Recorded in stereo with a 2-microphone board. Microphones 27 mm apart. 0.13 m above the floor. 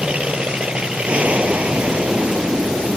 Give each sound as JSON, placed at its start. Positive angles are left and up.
{"t": 0.0, "sound": "an aircraft", "side_deg": -50}